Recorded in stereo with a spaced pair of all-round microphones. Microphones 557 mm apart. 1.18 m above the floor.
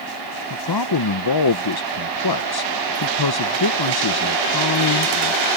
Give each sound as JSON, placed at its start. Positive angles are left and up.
{"t": 0.5, "sound": "a man speaking", "side_deg": 40}